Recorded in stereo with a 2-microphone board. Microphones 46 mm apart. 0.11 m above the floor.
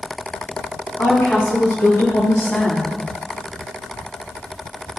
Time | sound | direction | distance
1.0 | a woman speaking | 70° left (ahead or behind) | 5 m